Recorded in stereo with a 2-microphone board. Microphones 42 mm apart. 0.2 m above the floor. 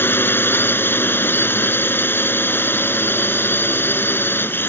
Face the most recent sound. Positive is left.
turn(degrees=60)  # may be behind; listen again after turning